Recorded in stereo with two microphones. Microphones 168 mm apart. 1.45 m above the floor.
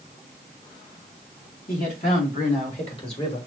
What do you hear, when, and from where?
1.7 s a man speaking: 55° left (ahead or behind), 3.5 m; by 3.4 s 35° left (ahead or behind), 3 m